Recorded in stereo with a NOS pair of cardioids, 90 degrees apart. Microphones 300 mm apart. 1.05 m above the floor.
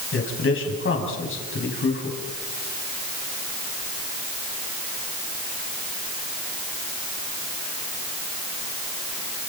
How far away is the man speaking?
About 6.5 m.